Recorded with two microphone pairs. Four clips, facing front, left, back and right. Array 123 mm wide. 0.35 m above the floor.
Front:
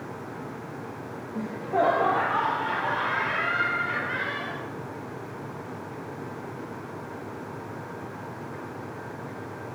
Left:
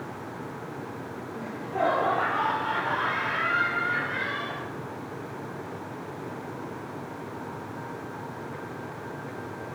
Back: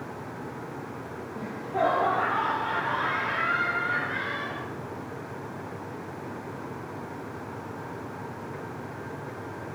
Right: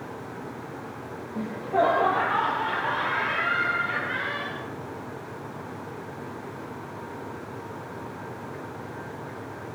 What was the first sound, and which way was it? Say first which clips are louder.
Laughter: right 5 dB, front 3 dB; 35° right.